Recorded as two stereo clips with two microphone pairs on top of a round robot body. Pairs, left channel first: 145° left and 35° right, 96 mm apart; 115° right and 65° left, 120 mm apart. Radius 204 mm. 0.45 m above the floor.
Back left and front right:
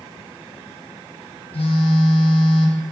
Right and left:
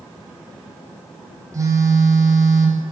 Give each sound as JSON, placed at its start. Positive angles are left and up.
{"t": 1.5, "sound": "a phone buzzing", "azimuth_deg": 125, "distance_m": 1.5}